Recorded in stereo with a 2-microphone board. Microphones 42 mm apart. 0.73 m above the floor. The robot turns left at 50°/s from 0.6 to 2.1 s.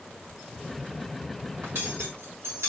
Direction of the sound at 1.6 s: 65° right (ahead or behind).